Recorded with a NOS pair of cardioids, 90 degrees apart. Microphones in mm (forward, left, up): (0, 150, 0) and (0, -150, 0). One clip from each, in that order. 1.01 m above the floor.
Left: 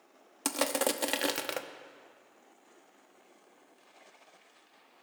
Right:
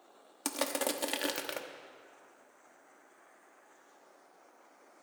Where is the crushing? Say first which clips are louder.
Left 4 dB; 20° left, 1.0 m.